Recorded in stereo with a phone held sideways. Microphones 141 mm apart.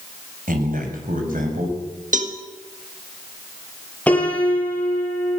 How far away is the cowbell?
About 1.8 m.